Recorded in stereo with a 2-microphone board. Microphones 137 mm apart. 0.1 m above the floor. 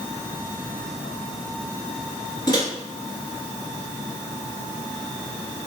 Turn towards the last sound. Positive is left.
turn(degrees=30)  # may be behind; listen again after turning